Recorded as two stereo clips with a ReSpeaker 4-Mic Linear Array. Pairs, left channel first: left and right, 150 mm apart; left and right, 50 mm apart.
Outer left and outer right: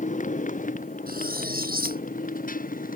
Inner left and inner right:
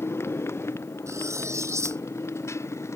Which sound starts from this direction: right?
Cutlery clinking, at 1.1 s.